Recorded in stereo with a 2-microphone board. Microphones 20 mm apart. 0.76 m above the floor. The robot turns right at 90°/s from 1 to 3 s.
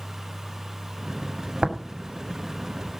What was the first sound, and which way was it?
Tapping, 55° right (ahead or behind).